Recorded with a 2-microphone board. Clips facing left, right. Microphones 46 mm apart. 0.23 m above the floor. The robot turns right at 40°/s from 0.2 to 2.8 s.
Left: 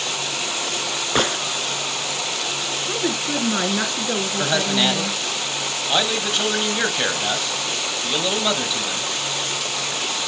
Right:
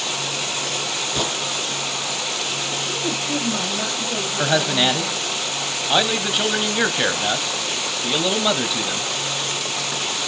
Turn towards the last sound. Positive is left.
turn(degrees=-10)  # may be behind; listen again after turning